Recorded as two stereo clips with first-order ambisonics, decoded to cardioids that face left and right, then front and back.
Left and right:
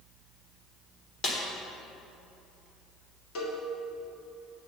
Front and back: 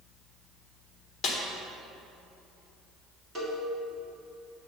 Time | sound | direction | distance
1.2 | a snare drum | 45° left | 1.4 m
3.4 | a cowbell | 105° left | 2.0 m